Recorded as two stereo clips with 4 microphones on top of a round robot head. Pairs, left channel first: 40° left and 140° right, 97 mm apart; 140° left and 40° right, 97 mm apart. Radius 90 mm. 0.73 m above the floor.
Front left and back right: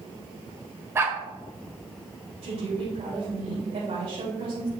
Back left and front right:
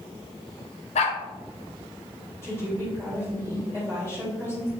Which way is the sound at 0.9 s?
155° left.